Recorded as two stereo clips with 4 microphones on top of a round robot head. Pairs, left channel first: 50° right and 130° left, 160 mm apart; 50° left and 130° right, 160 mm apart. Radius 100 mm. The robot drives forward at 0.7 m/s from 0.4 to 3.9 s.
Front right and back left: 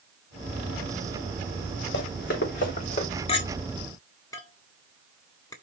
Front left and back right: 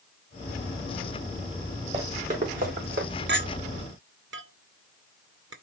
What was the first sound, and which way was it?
Running footsteps, 75° right.